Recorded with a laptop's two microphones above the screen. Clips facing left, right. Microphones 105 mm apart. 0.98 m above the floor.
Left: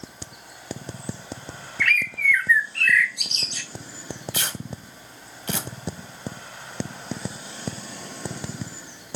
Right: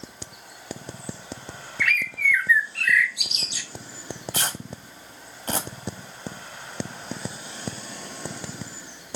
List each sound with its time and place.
1.8 s a bird: 5° right (ahead or behind), 0.6 m
4.3 s tearing paper: 40° right (ahead or behind), 1.1 m